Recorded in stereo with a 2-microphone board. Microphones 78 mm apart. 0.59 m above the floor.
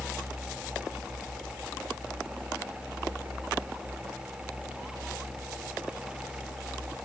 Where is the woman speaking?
No woman speaking in this recording.